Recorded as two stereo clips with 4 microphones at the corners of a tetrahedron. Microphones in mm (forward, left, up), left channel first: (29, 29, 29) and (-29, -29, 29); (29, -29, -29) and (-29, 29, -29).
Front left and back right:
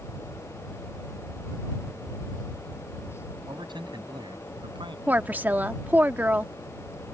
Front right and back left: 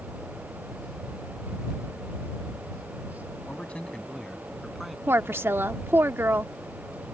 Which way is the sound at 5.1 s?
170° left.